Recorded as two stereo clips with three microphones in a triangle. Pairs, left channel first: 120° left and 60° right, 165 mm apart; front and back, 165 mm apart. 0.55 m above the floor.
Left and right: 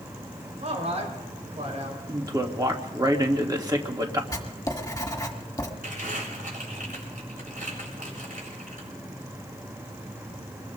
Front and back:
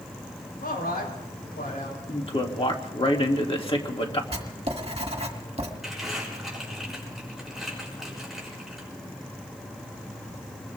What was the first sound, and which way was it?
A man speaking, 15° right.